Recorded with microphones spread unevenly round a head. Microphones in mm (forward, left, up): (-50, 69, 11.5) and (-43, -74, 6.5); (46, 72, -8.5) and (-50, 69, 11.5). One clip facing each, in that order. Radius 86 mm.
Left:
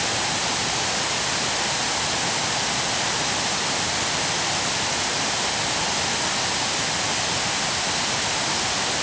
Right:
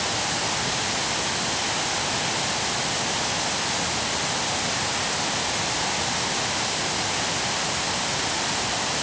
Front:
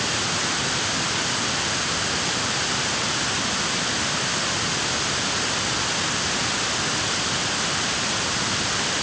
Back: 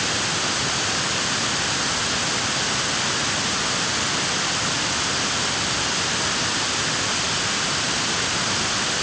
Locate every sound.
Only background noise.